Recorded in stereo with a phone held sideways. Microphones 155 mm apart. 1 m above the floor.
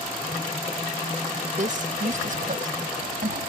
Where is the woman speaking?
60° right (ahead or behind); by 3.4 s 65° right (ahead or behind).